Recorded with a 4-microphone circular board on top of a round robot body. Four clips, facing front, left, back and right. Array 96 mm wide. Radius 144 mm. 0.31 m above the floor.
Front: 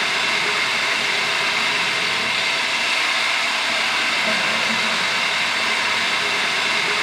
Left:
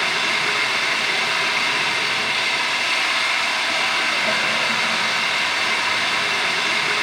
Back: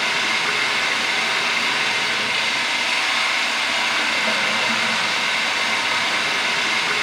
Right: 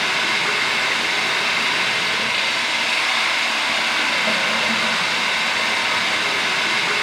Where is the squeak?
No squeak in this recording.